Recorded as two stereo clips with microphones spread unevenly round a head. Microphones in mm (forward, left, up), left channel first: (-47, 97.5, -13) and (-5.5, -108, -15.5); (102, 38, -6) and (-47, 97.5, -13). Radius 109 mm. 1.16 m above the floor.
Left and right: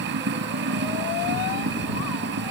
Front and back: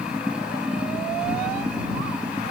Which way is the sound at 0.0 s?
115° right.